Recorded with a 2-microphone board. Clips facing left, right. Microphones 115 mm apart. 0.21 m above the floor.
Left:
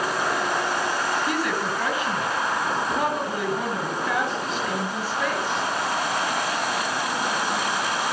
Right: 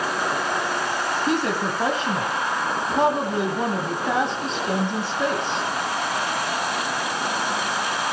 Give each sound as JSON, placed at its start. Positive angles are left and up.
{"t": 1.3, "sound": "a woman speaking", "side_deg": -30, "distance_m": 1.4}